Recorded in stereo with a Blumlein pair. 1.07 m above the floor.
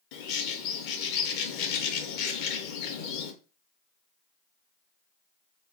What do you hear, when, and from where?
0.1 s a bird: 45° left, 0.5 m